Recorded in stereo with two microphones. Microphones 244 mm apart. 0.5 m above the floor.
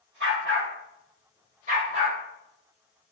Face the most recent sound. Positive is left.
turn(degrees=-25)  # may be behind; listen again after turning